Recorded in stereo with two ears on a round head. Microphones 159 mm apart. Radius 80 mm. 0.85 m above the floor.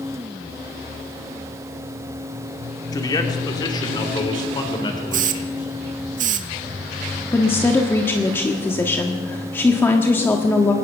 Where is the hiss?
50° right (ahead or behind), 1.1 m.